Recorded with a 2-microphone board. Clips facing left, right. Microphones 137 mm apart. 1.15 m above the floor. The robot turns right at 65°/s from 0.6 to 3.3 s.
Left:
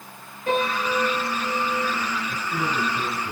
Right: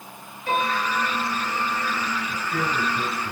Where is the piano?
45° left, 7.5 m; by 1.9 s 130° left, 7.5 m.